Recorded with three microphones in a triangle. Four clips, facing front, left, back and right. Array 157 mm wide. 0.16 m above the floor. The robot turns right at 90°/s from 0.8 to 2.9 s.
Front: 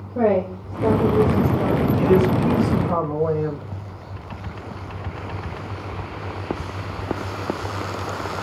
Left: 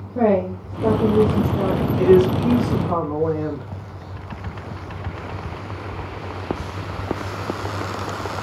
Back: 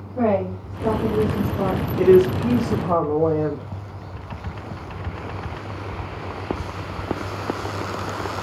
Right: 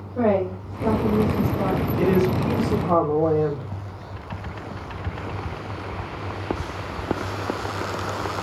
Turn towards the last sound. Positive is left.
turn(degrees=-130)